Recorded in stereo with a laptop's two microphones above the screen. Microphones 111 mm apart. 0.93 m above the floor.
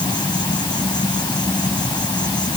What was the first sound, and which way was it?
An insect, 40° left (ahead or behind).